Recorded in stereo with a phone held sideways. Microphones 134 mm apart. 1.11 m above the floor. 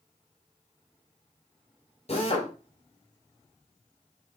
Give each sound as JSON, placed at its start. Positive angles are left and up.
{"t": 2.1, "sound": "a drill", "side_deg": 50, "distance_m": 3.0}